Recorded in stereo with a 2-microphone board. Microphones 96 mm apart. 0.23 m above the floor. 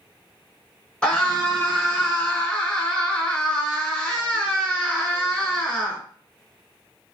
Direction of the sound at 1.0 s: 10° left (ahead or behind).